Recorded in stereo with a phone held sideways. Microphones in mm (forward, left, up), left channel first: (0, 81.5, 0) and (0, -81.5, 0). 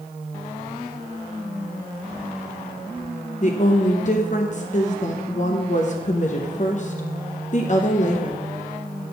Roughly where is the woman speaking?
Left.